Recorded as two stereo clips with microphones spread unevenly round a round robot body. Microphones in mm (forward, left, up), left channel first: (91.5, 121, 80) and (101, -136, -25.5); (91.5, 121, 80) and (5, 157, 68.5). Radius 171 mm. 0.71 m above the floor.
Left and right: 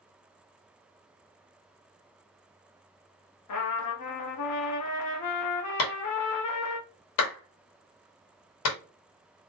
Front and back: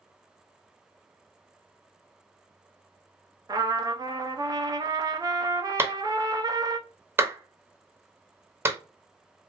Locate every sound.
3.5 s a trumpet: 125° left, 0.7 m
5.8 s a clap: 95° left, 1.1 m